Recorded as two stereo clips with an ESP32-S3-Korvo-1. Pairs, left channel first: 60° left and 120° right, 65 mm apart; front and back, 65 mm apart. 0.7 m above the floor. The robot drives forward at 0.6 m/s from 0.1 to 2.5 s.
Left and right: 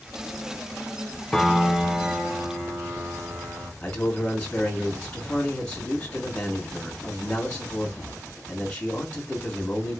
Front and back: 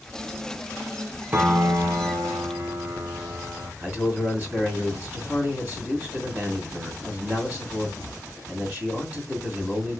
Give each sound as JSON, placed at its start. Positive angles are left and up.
{"t": 1.3, "sound": "a piano", "azimuth_deg": 135, "distance_m": 0.5}
{"t": 3.8, "sound": "a man speaking", "azimuth_deg": 125, "distance_m": 1.5}